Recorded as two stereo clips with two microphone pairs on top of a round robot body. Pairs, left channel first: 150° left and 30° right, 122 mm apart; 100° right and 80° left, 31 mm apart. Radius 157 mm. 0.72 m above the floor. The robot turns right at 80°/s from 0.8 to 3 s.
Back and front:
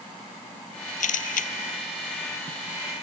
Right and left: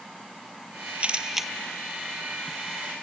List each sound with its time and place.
1.0 s a camera shutter: 130° left; by 1.5 s 170° left